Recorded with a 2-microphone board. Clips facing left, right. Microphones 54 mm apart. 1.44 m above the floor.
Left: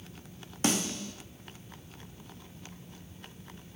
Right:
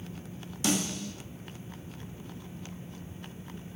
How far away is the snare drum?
About 0.5 m.